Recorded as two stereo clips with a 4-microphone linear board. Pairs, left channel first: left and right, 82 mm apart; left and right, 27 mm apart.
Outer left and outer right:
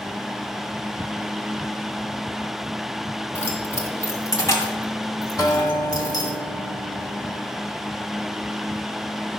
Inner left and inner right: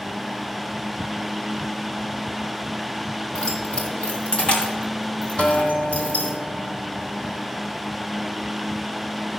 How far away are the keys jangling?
About 1.9 m.